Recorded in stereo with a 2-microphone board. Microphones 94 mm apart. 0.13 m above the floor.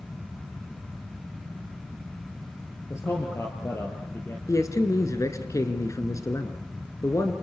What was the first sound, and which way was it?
A man speaking, 30° left (ahead or behind).